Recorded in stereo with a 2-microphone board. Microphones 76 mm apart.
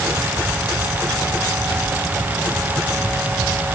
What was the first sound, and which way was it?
Only background noise.